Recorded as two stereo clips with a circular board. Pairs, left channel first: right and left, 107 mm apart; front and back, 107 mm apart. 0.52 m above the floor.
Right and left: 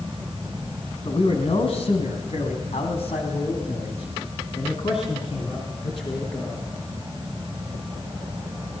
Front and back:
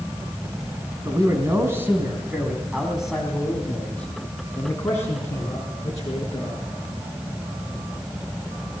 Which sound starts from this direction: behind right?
A man speaking, at 1.1 s.